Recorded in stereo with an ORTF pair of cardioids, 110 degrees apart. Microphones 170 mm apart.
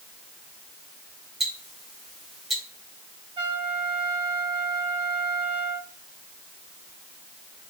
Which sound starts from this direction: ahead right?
A trumpet, at 3.4 s.